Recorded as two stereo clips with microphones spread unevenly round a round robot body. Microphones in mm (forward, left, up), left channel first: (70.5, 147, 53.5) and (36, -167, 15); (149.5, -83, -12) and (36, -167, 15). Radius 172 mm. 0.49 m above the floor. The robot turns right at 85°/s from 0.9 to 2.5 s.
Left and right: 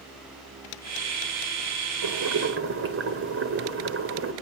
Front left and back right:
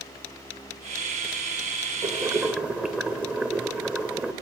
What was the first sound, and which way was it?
Boiling, 95° right.